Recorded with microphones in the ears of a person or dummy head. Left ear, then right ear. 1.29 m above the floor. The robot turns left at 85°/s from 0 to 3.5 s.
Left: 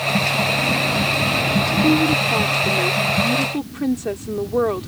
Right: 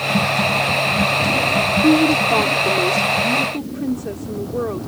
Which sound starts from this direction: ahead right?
A woman speaking, at 1.8 s.